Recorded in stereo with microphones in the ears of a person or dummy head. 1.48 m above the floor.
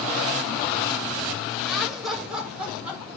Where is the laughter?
5° right (ahead or behind), 5 m; by 3.0 s 10° right (ahead or behind), 6.5 m.